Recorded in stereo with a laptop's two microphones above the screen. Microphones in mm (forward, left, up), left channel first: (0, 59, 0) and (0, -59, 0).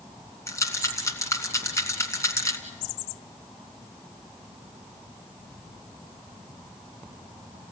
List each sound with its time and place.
0.5 s a rattle: 25° left (ahead or behind), 2 m